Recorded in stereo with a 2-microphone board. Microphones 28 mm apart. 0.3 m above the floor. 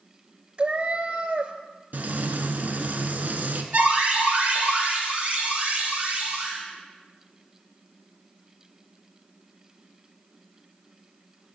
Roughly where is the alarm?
Right.